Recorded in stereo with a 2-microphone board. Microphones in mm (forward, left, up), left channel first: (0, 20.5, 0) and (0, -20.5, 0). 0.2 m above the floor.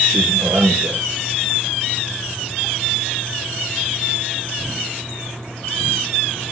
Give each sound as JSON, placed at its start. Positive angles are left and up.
{"t": 0.1, "sound": "a man speaking", "side_deg": -65, "distance_m": 3.5}